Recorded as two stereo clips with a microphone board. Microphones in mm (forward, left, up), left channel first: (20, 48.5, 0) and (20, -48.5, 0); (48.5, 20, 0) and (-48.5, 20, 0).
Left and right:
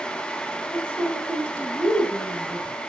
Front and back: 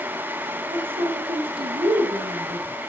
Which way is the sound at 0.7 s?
170° left.